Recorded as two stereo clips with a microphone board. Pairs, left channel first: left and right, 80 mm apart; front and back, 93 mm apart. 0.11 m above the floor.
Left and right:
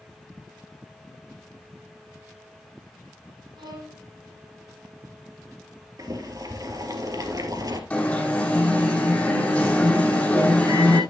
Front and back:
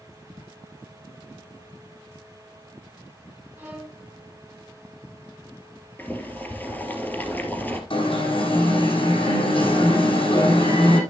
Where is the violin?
110° right, 5 m.